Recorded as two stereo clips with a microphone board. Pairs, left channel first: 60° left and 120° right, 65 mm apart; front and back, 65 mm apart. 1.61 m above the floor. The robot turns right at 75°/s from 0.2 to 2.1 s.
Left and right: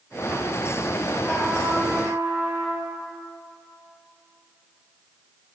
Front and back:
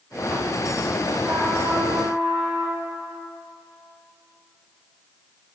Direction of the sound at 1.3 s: 125° left.